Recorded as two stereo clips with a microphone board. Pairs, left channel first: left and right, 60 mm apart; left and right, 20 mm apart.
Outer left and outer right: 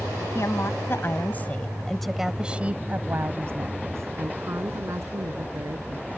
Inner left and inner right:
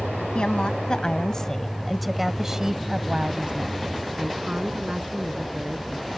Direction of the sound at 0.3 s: 55° left (ahead or behind).